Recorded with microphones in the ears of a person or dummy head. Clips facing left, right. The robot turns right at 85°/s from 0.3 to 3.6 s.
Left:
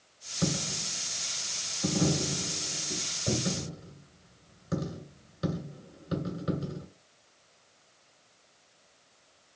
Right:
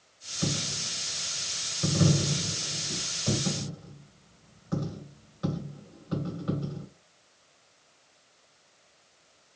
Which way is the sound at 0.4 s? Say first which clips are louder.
Left 1 dB; 40° left (ahead or behind).